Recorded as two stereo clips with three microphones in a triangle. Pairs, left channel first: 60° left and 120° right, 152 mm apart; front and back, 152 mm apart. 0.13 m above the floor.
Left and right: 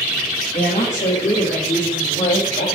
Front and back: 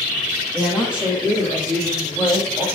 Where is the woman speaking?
100° left, 5.5 m; by 2.6 s 85° left, 6 m.